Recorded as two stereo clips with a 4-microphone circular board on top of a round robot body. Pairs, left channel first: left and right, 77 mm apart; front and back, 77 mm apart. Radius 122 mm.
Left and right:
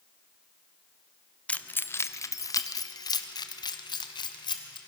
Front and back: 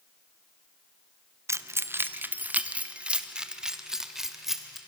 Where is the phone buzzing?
I don't hear a phone buzzing.